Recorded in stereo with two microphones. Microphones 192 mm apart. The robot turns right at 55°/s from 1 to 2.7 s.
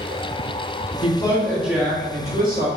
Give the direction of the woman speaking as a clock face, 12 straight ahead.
7 o'clock.